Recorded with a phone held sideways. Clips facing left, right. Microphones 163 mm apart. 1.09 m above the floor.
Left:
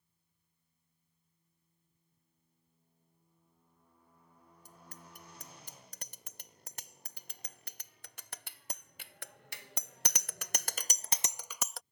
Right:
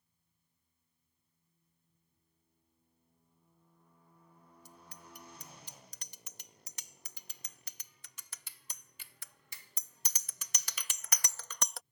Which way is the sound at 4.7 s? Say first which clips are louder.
Left 1 dB; 55° left (ahead or behind).